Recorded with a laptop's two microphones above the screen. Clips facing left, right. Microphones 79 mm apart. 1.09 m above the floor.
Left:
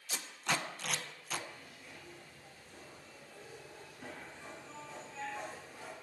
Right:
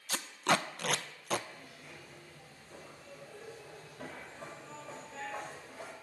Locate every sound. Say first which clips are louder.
0.1 s tape being pulled: right 6 dB; 60° right (ahead or behind), 0.7 m
1.5 s a zipper: right 2 dB; 85° right, 5.5 m